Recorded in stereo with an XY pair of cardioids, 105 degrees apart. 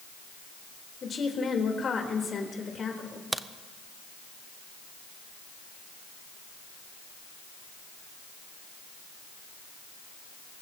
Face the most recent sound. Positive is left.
turn(degrees=-20)